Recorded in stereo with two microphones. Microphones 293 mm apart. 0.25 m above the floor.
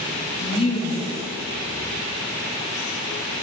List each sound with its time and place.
0.4 s a woman speaking: 20° left (ahead or behind), 1.3 m